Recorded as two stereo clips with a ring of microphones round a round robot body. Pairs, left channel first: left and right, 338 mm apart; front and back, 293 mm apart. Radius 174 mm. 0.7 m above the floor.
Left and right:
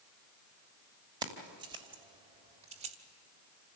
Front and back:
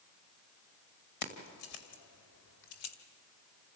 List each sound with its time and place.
1.2 s keys jangling: 10° right, 2.5 m; by 3.0 s 20° right, 1.6 m